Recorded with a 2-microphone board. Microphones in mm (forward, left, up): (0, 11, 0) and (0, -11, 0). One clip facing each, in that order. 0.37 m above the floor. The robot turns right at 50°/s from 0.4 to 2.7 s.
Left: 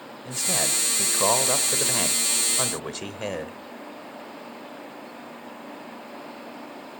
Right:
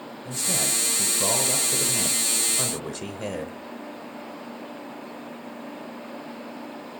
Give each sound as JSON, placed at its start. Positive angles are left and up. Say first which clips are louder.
{"t": 0.2, "sound": "a man speaking", "louder": "left 1 dB", "azimuth_deg": 30, "distance_m": 1.0}